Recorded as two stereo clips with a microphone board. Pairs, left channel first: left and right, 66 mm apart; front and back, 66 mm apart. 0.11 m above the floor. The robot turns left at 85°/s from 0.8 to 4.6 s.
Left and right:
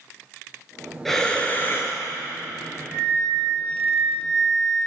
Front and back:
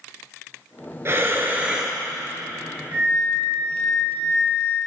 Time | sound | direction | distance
1.1 | breathing | 175° left | 0.8 m
2.9 | a flute | 155° right | 2.5 m